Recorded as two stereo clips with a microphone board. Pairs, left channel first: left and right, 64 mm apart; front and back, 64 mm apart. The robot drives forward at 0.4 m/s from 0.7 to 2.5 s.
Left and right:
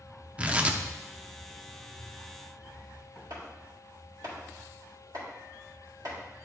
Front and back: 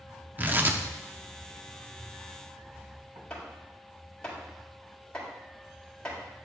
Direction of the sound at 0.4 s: 145° right.